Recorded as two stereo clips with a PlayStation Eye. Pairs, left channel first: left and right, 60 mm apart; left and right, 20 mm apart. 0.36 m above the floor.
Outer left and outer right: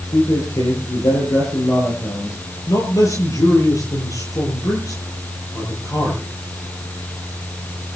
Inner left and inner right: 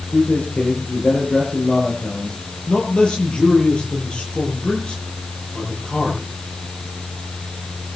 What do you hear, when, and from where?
0.1 s a man speaking: 75° left (ahead or behind), 8 m
2.7 s a man speaking: 65° left (ahead or behind), 9 m